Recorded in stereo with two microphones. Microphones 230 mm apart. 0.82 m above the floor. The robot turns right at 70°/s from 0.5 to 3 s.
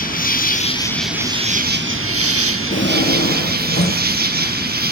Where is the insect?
140° left, 0.8 m; by 4.9 s 45° right, 0.8 m.